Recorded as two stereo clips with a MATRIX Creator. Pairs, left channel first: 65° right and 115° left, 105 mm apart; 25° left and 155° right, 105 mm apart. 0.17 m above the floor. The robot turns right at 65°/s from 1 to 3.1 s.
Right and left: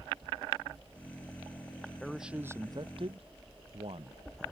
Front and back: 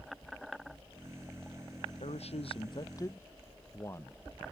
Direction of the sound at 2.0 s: 15° left.